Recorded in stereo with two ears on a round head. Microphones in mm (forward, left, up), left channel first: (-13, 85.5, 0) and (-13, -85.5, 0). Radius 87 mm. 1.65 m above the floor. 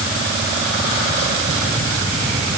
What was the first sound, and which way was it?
Only background noise.